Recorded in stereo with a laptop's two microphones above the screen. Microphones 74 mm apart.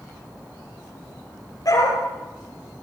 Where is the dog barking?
55° left (ahead or behind), 10 m.